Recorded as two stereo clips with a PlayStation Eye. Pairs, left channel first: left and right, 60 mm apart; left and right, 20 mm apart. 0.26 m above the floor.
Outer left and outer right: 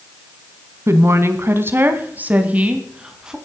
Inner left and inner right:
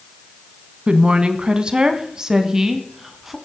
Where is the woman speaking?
55° right (ahead or behind), 1.8 m; by 3.4 s 10° right (ahead or behind), 1.9 m.